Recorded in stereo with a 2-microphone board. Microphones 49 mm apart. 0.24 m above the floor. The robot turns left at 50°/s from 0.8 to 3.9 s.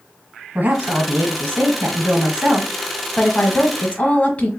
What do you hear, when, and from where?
0.6 s a woman speaking: 65° right, 1.3 m; by 4.5 s 140° left, 1.3 m